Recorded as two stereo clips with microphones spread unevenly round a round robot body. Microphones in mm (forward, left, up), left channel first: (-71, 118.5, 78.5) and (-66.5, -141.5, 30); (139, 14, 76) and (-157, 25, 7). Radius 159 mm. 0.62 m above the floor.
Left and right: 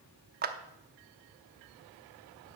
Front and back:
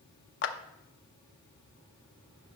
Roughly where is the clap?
Ahead right.